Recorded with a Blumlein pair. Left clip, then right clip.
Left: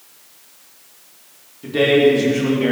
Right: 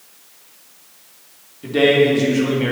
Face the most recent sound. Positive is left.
turn(degrees=-5)